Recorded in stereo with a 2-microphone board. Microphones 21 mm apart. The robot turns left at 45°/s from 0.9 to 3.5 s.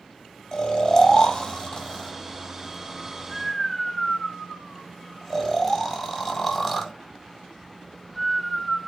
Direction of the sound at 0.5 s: 30° left (ahead or behind).